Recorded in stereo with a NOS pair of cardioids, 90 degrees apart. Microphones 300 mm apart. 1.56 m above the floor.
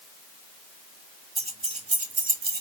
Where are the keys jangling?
20° right, 1.9 m; by 2.6 s 35° right, 1.4 m.